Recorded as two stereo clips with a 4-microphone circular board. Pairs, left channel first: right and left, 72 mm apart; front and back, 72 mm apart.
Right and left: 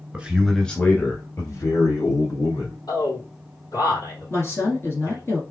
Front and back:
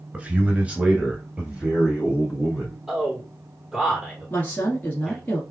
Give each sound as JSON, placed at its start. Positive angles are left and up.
{"t": 0.1, "sound": "a man speaking", "azimuth_deg": 135, "distance_m": 1.4}
{"t": 2.9, "sound": "a man speaking", "azimuth_deg": -95, "distance_m": 3.0}
{"t": 4.3, "sound": "a woman speaking", "azimuth_deg": -55, "distance_m": 1.7}